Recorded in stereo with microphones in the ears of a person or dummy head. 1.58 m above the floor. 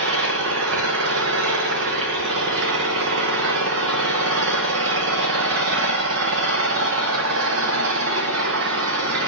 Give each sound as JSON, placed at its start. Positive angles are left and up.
{"t": 0.0, "sound": "an engine running", "side_deg": -70, "distance_m": 0.9}